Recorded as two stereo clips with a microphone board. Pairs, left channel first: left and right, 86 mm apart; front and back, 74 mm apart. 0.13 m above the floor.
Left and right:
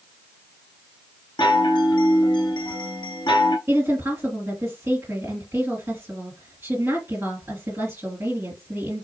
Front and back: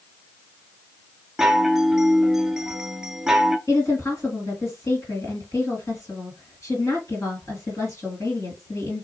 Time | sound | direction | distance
1.4 | a chime | 95° left | 0.5 m
3.7 | a woman speaking | 35° right | 3 m